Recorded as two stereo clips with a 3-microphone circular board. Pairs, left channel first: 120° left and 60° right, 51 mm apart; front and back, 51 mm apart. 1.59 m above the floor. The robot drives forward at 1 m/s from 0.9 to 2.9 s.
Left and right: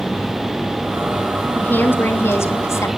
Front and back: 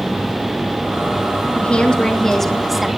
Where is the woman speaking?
65° left, 3 m; by 2.9 s 95° left, 2.5 m.